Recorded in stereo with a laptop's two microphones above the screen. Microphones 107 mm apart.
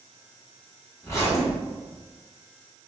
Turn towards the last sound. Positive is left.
turn(degrees=25)  # may be behind; listen again after turning